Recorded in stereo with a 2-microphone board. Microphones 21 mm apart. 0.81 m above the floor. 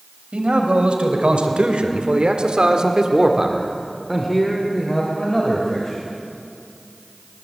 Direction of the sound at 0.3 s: 80° right.